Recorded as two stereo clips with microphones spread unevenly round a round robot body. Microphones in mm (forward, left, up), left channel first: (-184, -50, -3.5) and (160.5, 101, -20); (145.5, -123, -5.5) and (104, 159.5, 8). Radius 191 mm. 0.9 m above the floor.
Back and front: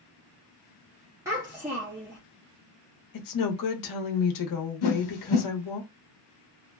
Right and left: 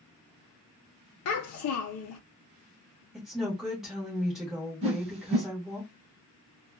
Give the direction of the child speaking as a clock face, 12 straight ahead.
2 o'clock.